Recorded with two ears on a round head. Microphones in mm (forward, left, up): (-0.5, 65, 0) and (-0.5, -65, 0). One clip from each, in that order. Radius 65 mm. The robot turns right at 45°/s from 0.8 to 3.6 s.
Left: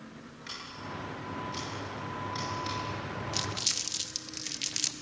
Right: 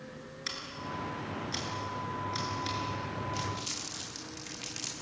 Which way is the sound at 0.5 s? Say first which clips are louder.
Right 2 dB; 85° right.